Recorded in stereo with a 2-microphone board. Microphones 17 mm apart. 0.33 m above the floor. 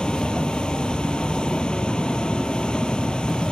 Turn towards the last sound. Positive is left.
turn(degrees=70)  # may be behind; listen again after turning